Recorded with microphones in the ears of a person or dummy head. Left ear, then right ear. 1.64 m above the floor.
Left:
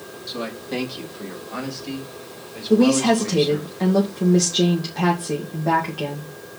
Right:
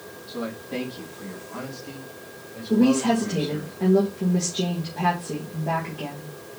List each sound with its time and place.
0.3 s a man speaking: 80° left, 3 m; by 3.7 s 55° left (ahead or behind), 2.5 m
2.7 s a woman speaking: 75° left (ahead or behind), 2 m